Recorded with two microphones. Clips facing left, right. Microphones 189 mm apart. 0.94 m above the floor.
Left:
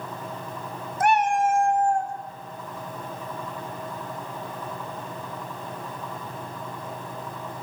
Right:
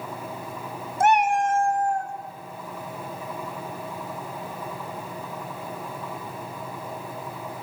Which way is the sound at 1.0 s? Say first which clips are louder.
Right 1 dB; 30° right (ahead or behind).